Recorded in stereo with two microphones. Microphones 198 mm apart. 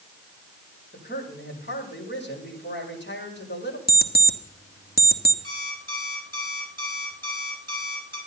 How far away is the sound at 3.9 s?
About 1.2 m.